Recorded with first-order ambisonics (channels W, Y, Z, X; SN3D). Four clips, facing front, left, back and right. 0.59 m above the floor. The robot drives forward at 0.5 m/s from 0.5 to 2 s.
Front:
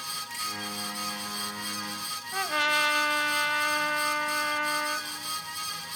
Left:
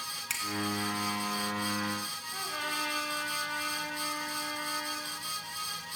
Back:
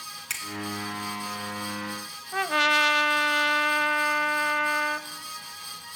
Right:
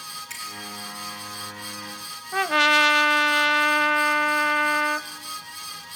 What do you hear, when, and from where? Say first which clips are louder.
0.3 s a finger snap: left 3 dB, back 6 dB; 150° left, 5.5 m
2.3 s a trumpet: right 18 dB, back 4 dB; 105° right, 0.8 m